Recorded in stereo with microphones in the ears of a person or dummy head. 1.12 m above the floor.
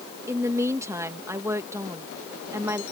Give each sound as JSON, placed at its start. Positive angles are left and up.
{"t": 0.3, "sound": "a woman speaking", "side_deg": -20}